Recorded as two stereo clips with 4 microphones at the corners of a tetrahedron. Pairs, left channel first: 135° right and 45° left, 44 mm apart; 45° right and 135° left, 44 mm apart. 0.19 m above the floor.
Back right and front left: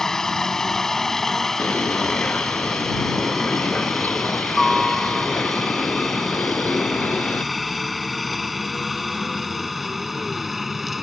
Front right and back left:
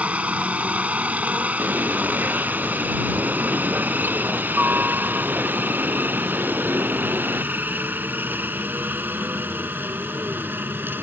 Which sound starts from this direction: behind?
A bird, at 1.6 s.